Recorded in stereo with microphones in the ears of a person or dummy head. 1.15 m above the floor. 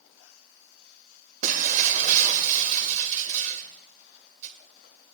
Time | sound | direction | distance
1.4 | breaking glass | 35° right (ahead or behind) | 1.9 m